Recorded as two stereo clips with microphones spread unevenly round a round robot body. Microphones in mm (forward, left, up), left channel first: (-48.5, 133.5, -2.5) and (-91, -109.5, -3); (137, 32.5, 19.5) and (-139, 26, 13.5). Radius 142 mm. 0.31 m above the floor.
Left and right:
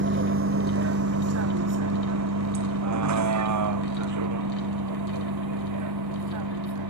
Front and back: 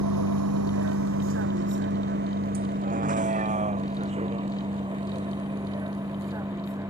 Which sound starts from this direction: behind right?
A vehicle, at 0.0 s.